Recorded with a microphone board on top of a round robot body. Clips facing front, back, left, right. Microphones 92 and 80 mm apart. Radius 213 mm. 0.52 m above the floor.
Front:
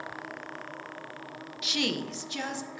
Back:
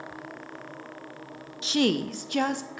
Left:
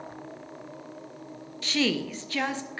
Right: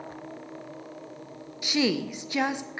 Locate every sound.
1.6 s a woman speaking: 155° right, 0.6 m; by 2.8 s 165° right, 1.1 m